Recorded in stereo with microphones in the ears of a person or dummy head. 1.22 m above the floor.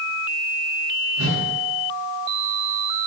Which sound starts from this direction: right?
A whoosh, at 1.2 s.